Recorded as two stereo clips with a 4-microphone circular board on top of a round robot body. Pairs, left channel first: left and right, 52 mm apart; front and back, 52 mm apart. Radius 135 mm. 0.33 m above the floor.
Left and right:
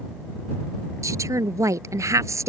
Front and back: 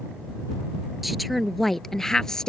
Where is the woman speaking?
90° right; by 2.5 s 75° right.